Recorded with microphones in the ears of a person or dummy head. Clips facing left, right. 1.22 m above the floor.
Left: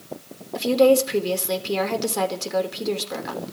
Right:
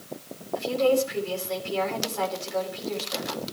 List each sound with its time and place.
0.6 s a woman speaking: 70° left (ahead or behind), 4.5 m